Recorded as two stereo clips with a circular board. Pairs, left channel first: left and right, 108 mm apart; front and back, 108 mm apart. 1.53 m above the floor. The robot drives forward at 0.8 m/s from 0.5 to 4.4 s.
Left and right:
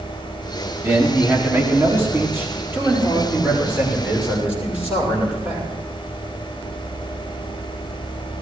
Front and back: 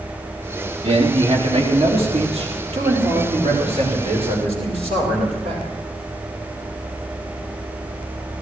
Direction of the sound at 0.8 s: 155° right.